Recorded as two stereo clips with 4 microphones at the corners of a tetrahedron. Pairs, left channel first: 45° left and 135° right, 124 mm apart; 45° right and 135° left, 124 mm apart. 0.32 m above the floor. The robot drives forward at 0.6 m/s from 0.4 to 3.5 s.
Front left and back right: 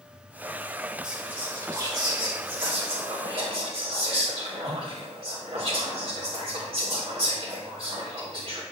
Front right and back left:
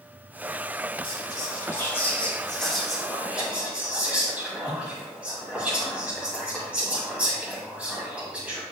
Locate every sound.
1.0 s whispering: 55° right, 1.2 m; by 8.6 s 150° right, 1.5 m